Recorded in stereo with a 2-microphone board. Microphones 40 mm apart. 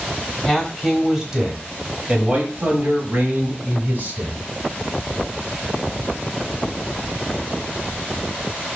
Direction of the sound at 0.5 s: 5° left (ahead or behind).